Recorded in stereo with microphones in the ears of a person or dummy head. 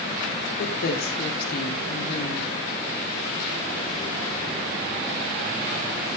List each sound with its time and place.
0.6 s a woman speaking: 55° left (ahead or behind), 3 m